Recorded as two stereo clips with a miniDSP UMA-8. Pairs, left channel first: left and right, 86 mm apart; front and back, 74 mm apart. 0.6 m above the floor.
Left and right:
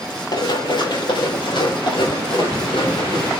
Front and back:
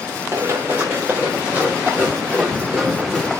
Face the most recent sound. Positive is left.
turn(degrees=95)